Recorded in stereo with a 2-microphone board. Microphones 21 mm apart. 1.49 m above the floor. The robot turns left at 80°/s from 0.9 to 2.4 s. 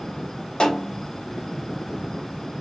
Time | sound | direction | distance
0.6 | a snare drum | 40° left (ahead or behind) | 2.5 m